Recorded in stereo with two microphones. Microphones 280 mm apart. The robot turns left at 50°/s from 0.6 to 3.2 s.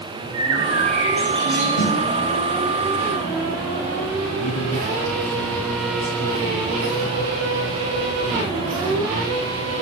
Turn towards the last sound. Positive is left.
turn(degrees=80)